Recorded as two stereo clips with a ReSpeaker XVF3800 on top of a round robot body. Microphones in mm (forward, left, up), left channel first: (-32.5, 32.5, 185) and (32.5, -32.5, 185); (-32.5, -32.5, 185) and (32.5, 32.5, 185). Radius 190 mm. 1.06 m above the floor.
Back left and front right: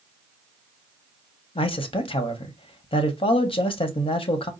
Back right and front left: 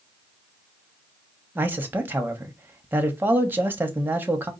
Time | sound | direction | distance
1.6 | a man speaking | 115° left | 1.0 m